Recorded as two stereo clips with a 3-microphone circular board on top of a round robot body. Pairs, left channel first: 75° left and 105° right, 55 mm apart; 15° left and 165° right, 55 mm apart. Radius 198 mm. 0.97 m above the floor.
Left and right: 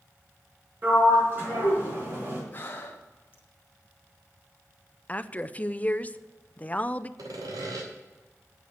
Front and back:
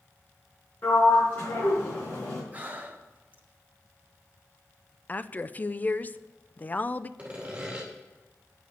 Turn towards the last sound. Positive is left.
turn(degrees=-95)